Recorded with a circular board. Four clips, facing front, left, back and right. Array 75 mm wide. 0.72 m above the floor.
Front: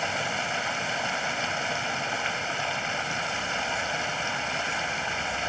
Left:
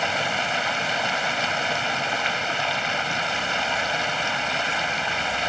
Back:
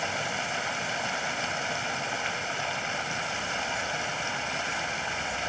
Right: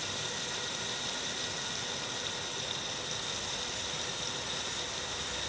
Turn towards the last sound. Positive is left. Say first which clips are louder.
# left 16 dB, front 2 dB
turn(degrees=85)